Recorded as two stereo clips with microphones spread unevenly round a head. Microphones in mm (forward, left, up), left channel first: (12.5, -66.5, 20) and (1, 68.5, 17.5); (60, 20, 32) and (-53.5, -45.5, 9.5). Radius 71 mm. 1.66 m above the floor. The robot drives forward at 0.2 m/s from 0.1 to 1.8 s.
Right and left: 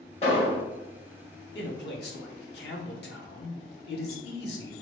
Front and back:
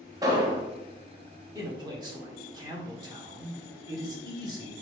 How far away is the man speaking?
About 1.1 m.